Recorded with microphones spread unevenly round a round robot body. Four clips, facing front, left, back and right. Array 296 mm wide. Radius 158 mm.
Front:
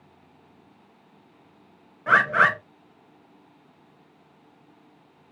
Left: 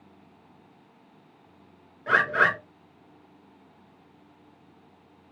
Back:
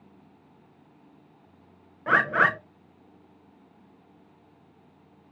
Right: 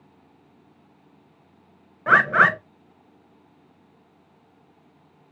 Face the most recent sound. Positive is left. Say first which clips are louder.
# right 5 dB, front 3 dB
turn(degrees=-80)